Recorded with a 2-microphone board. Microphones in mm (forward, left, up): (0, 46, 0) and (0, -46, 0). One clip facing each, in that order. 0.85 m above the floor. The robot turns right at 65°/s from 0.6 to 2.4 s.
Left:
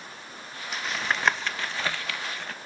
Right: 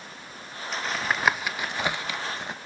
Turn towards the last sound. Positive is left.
turn(degrees=-20)  # may be behind; listen again after turning